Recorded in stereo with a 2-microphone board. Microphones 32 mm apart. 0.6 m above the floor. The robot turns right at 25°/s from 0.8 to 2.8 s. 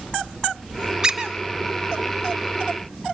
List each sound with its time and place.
1.0 s a squeak: 20° right (ahead or behind), 1.0 m; by 1.3 s 25° right (ahead or behind), 1.0 m